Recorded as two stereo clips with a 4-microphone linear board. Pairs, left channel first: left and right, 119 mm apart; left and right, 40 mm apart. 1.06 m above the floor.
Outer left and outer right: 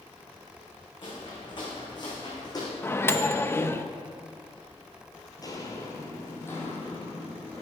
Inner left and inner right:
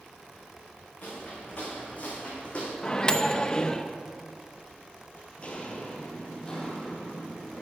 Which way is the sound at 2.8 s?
20° left (ahead or behind).